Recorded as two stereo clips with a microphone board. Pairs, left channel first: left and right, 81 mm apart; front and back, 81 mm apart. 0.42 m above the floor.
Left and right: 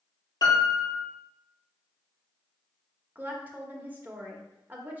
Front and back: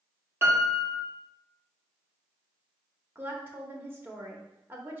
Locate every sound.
0.4 s a piano: 120° left, 1.5 m
3.1 s a woman speaking: 140° right, 0.9 m